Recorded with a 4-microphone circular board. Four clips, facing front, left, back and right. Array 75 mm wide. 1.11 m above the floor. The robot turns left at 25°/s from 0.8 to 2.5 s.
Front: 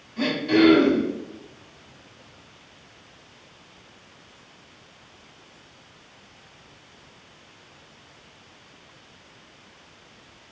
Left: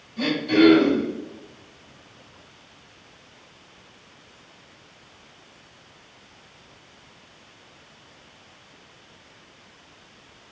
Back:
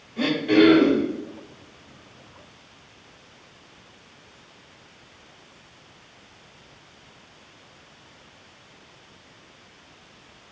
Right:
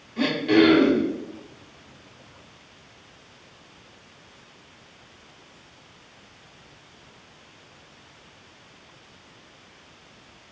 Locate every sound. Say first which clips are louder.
0.2 s throat clearing: even, back 1 dB; 115° right, 2.0 m; by 1.1 s 125° right, 2.0 m